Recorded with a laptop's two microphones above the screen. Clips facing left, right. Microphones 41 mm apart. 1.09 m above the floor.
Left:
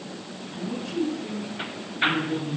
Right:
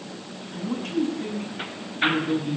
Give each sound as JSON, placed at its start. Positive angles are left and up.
{"t": 0.5, "sound": "a man speaking", "side_deg": -90, "distance_m": 8.0}